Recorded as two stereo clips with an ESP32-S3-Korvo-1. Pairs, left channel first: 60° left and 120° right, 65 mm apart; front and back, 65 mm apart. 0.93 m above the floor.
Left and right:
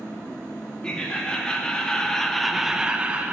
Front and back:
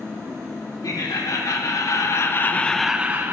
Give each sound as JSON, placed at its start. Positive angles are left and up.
{"t": 0.8, "sound": "laughter", "azimuth_deg": -15, "distance_m": 1.7}